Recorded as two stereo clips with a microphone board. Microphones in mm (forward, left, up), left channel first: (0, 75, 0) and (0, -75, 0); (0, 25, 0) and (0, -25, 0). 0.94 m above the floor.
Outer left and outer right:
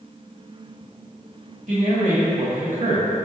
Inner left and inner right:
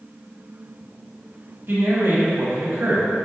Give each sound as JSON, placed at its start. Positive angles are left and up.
{"t": 1.7, "sound": "a man speaking", "side_deg": -55, "distance_m": 1.3}